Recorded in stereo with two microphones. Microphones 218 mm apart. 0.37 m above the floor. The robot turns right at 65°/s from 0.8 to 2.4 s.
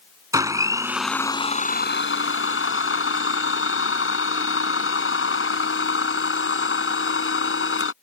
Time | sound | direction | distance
0.3 | a blender | 15° right | ?